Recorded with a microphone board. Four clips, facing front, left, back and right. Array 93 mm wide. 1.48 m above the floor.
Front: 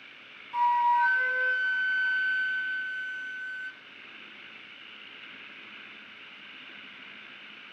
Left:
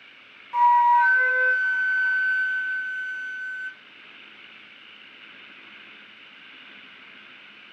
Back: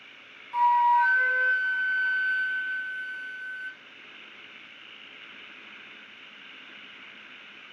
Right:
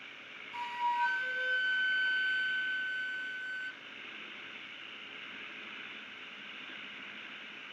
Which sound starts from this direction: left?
A flute, at 0.5 s.